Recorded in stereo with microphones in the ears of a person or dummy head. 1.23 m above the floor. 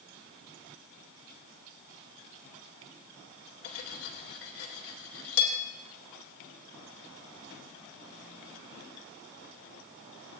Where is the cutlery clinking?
80° left, 2.5 m.